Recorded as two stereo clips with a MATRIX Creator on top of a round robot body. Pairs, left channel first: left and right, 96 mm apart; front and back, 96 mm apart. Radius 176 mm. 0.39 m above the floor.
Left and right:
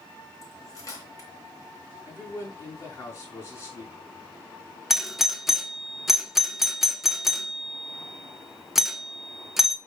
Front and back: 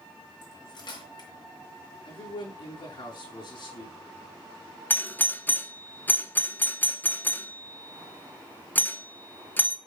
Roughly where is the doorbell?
Ahead.